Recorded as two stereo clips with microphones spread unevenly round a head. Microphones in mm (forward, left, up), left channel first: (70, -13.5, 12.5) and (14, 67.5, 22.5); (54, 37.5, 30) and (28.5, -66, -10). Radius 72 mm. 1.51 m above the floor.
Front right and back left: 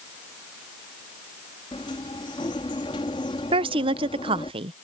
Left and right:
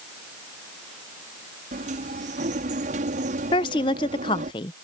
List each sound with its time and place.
1.7 s a sliding door: 115° right
3.5 s a woman speaking: 105° left